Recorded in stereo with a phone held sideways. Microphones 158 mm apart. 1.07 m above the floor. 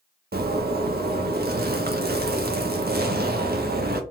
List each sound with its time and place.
0.3 s a zipper: 80° right, 0.5 m